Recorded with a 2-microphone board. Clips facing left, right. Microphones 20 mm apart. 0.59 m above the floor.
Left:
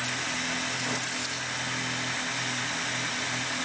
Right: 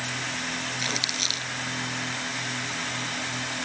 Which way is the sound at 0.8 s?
80° right.